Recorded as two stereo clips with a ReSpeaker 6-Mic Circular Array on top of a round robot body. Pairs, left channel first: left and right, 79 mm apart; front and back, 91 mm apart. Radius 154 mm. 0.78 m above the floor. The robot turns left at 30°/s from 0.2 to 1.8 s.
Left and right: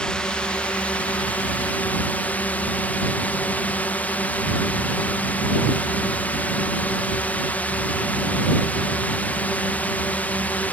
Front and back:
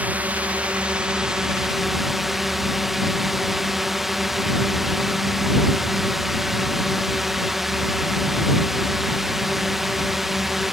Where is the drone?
145° left; by 10.7 s 95° left.